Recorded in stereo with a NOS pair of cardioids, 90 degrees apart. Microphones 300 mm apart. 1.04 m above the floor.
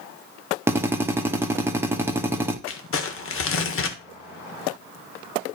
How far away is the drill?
About 1.5 m.